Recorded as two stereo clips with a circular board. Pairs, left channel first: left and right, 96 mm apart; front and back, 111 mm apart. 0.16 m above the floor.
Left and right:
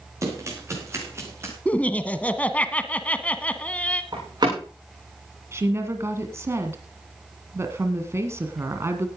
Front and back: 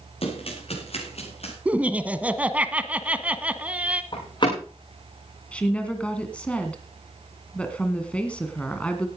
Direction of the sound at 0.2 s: 30° right.